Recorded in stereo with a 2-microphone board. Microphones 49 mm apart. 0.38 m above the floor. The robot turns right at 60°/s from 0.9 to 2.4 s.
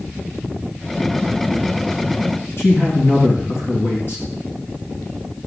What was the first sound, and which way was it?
A man speaking, 55° left (ahead or behind).